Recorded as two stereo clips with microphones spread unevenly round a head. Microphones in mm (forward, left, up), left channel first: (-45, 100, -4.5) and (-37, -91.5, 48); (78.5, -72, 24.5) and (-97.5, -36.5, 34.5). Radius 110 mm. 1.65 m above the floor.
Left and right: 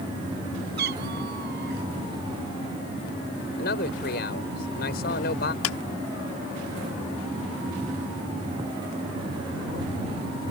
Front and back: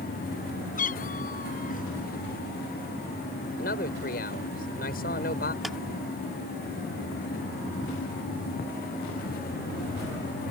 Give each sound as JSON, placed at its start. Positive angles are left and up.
{"t": 0.8, "sound": "a cat meowing", "azimuth_deg": -55}
{"t": 3.6, "sound": "a man speaking", "azimuth_deg": 40}
{"t": 5.6, "sound": "a clap", "azimuth_deg": 80}